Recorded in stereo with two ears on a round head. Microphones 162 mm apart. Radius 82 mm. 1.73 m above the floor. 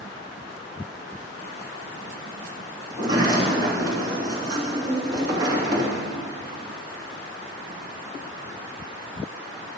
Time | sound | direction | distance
2.9 | a sliding door | 25° right (ahead or behind) | 2.5 m